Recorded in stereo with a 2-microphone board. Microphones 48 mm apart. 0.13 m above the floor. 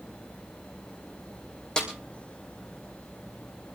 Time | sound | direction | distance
1.8 | a snare drum | 15° left (ahead or behind) | 3.5 m